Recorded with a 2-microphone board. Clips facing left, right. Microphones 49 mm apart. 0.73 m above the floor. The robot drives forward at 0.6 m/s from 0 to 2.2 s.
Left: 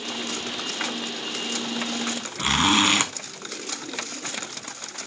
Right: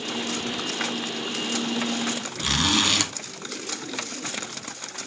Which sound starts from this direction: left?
A zipper, at 2.4 s.